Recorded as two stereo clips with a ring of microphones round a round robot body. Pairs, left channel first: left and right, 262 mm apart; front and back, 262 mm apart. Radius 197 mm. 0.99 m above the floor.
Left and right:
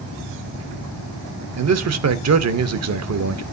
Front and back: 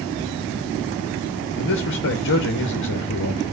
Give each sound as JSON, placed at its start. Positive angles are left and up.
{"t": 1.6, "sound": "a man speaking", "azimuth_deg": -60, "distance_m": 0.9}